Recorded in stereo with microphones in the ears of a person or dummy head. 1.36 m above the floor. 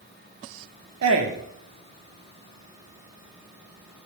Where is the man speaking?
80° right, 1.1 m.